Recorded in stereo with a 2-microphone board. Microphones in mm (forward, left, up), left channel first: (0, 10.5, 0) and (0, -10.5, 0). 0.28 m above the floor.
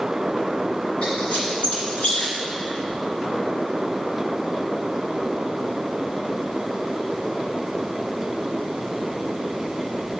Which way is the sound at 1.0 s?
70° left (ahead or behind).